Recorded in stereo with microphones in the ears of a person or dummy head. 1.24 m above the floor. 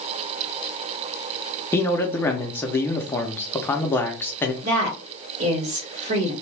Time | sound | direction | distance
1.7 | a man speaking | 15° left (ahead or behind) | 0.6 m
4.6 | a woman speaking | 60° right (ahead or behind) | 1.8 m